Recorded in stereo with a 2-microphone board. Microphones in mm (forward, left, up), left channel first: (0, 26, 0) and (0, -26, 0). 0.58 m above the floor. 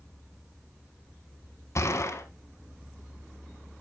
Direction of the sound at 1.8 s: 60° left (ahead or behind).